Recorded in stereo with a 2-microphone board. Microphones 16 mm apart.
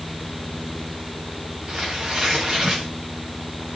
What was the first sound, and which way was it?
Tearing paper, 40° right (ahead or behind).